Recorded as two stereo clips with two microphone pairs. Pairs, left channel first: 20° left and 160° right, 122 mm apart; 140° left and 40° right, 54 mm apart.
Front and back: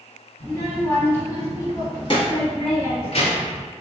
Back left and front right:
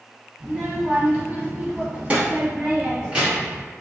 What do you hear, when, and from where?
0.4 s a child speaking: 80° right, 1.0 m; by 3.6 s 35° left, 1.7 m